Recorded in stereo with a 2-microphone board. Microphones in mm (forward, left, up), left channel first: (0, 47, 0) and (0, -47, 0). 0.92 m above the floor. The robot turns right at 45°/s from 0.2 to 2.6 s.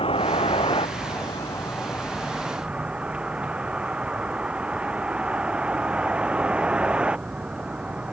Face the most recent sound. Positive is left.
turn(degrees=-170)